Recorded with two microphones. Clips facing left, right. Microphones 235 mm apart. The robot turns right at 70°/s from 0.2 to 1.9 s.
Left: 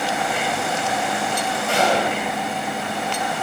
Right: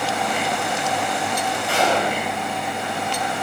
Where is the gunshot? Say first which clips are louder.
Left 1 dB; 45° left (ahead or behind), 2.5 m; by 2.2 s 30° left (ahead or behind), 2.5 m.